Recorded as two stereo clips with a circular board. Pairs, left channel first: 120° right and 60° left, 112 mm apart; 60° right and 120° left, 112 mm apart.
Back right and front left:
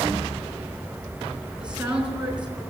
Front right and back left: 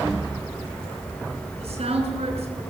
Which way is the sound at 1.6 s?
140° left.